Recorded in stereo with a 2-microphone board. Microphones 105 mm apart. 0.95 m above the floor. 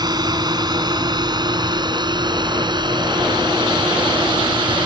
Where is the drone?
40° right (ahead or behind); by 4.9 s 50° right (ahead or behind).